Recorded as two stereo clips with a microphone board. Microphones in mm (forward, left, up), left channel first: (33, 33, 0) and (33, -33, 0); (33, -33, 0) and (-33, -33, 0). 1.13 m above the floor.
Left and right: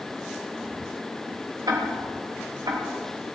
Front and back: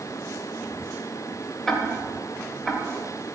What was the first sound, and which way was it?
Ticking, 85° right.